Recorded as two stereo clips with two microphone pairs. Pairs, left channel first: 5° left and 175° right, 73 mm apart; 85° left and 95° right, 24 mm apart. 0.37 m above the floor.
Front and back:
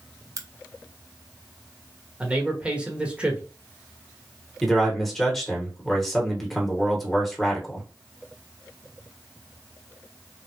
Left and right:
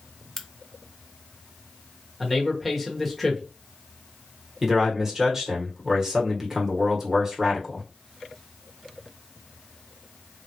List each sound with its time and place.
0.4 s a crack: 155° left, 0.6 m
2.2 s a man speaking: 160° left, 1.1 m
4.6 s a man speaking: 80° right, 1.3 m